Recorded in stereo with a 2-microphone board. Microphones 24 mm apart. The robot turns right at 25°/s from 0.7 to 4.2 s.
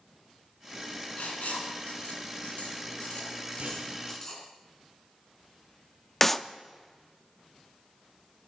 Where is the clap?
15° left (ahead or behind), 0.5 m.